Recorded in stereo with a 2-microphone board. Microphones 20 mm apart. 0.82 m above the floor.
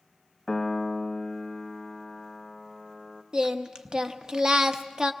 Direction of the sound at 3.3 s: 35° right (ahead or behind).